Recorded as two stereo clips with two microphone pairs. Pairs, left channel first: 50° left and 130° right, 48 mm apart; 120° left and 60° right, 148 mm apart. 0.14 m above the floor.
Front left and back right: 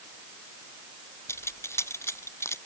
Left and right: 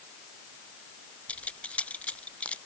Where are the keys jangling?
35° left.